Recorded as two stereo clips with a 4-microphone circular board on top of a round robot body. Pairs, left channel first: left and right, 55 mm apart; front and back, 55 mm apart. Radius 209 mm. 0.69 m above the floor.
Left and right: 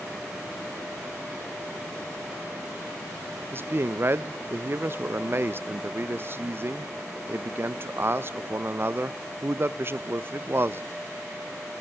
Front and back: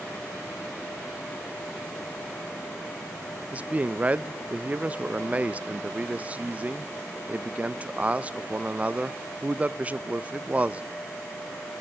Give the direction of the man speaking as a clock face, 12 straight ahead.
4 o'clock.